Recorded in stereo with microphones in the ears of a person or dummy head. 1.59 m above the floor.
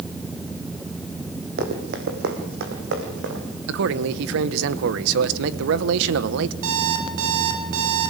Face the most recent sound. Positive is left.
turn(degrees=-80)